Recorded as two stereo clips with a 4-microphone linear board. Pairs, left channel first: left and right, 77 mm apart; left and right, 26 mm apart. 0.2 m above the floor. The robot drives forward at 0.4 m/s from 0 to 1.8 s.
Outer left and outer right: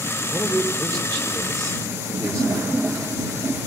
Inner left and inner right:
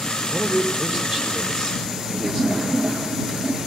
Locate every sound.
0.3 s a man speaking: 45° right (ahead or behind), 6.5 m; by 2.7 s 40° right (ahead or behind), 7 m